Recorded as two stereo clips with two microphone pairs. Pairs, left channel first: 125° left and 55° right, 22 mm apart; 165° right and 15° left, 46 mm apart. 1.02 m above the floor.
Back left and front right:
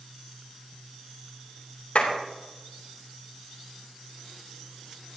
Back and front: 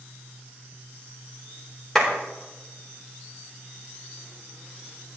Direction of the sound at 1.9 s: 115° left.